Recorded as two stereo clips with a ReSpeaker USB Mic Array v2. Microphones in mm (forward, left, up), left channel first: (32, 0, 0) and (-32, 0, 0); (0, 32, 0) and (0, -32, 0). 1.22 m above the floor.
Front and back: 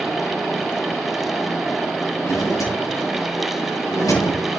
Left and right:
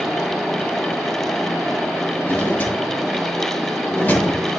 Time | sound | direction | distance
2.2 | a drawer | 25° left | 7.5 m